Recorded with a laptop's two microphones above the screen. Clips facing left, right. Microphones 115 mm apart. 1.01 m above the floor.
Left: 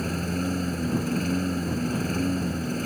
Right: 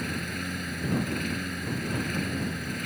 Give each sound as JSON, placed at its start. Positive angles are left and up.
{"t": 0.0, "sound": "a lawn mower", "side_deg": 35}